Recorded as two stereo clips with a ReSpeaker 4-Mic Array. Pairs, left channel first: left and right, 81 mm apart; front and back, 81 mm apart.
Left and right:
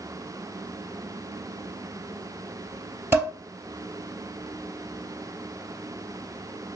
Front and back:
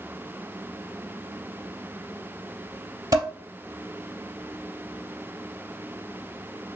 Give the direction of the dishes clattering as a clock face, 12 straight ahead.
5 o'clock.